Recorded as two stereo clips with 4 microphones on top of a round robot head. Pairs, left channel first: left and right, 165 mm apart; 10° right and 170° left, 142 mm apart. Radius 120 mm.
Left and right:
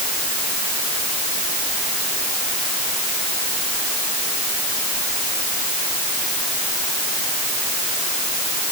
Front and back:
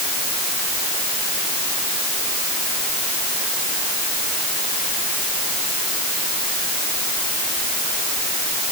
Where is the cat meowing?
I don't hear a cat meowing.